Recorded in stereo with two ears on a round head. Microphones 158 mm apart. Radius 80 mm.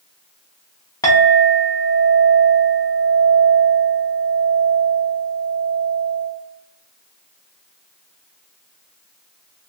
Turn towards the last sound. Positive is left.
turn(degrees=20)  # may be behind; listen again after turning